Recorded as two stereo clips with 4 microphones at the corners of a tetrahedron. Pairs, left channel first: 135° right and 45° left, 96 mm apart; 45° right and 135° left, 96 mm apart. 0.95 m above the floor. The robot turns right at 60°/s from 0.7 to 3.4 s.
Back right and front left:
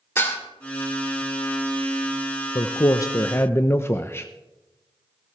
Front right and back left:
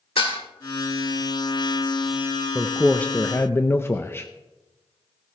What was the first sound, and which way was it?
Dishes clattering, 70° right.